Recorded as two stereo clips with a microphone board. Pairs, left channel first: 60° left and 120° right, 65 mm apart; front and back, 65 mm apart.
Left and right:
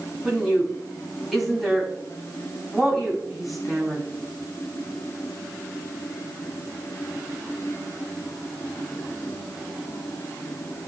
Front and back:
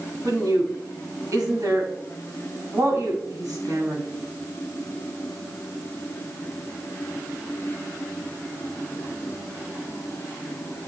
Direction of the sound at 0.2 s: 150° left.